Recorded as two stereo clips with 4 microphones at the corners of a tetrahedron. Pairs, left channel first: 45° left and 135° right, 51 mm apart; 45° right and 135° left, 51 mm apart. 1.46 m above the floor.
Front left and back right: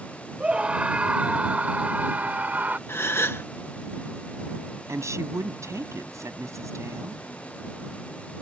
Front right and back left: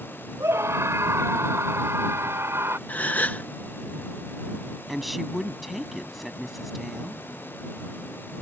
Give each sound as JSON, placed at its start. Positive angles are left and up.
{"t": 0.4, "sound": "a scream", "azimuth_deg": 155}
{"t": 2.9, "sound": "a gasp", "azimuth_deg": 10}
{"t": 4.9, "sound": "a woman speaking", "azimuth_deg": -135}